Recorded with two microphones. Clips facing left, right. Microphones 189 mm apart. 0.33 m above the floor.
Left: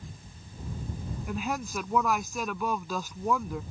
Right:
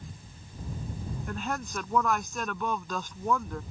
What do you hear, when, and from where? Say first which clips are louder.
1.3 s a woman speaking: left 3 dB; 10° left (ahead or behind)